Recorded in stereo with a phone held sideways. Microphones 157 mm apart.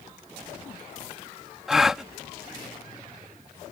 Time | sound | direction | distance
1.7 | a gasp | centre (ahead or behind) | ?